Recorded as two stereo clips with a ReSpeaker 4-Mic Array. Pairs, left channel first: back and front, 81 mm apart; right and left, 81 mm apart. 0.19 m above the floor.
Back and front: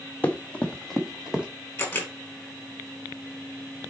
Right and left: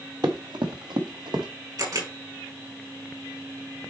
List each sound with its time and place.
0.2 s running footsteps: 115° left, 1.7 m; by 1.5 s 75° left, 2.0 m
1.8 s a camera shutter: 120° left, 4.5 m